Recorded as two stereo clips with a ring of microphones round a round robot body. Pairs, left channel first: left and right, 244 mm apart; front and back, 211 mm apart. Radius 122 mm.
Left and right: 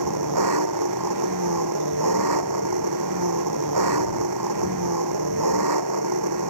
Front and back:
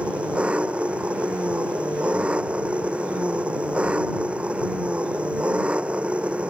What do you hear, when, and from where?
0.0 s an engine running: 95° right